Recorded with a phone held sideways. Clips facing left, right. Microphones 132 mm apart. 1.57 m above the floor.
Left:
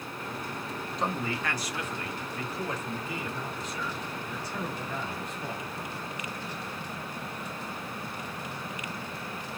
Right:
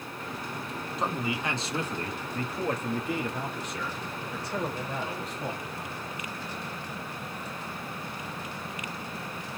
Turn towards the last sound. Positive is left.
turn(degrees=-80)